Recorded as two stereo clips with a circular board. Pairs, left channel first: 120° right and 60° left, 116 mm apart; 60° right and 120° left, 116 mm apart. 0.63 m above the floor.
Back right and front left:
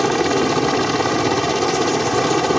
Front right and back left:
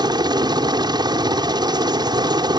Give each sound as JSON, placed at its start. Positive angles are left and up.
{"t": 0.0, "sound": "a helicopter", "azimuth_deg": 150}